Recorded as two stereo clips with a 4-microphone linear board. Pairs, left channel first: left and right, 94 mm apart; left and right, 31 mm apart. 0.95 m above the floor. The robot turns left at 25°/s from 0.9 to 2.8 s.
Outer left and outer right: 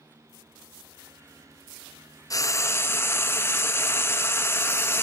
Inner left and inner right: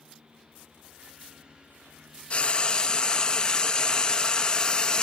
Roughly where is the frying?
Left.